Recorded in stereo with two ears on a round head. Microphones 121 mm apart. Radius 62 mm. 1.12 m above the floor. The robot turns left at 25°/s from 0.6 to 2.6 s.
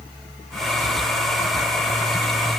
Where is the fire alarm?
No fire alarm in this recording.